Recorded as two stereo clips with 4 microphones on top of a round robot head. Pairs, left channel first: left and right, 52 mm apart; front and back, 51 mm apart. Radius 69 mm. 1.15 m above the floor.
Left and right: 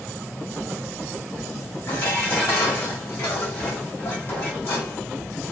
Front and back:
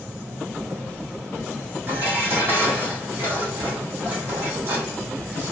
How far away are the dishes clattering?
About 2.5 m.